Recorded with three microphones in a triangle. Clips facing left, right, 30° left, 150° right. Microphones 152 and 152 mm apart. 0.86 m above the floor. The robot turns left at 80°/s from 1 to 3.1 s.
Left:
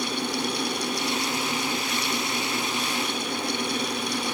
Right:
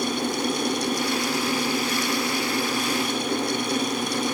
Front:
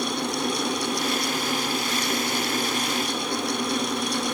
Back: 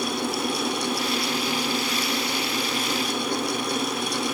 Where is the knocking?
I don't hear knocking.